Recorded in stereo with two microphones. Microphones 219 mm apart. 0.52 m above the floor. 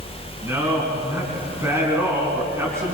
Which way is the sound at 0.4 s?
15° right (ahead or behind).